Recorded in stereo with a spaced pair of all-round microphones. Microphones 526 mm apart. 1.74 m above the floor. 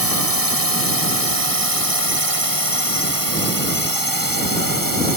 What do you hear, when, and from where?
0.0 s a drone: 40° left (ahead or behind)